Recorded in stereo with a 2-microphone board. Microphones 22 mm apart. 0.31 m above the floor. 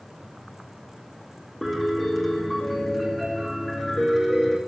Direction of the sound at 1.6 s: 5° left (ahead or behind).